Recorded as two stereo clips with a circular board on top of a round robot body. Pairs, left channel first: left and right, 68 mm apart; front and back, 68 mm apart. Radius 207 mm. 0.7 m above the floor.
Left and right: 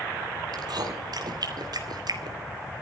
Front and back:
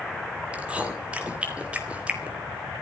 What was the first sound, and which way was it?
Chewing, 110° right.